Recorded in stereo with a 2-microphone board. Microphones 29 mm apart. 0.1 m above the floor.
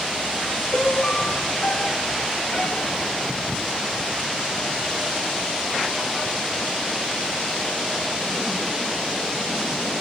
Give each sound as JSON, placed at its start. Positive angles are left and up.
{"t": 0.7, "sound": "a piano", "side_deg": 50, "distance_m": 0.8}